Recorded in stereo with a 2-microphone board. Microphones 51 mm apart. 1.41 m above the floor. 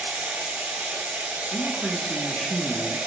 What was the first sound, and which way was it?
Running water, 35° right (ahead or behind).